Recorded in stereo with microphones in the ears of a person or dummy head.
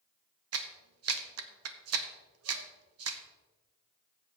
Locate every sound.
0.5 s a clap: 75° right (ahead or behind), 1.0 m